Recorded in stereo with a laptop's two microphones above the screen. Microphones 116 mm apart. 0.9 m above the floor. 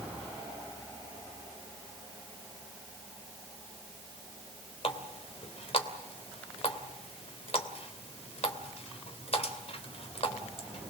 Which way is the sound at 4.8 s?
60° left (ahead or behind).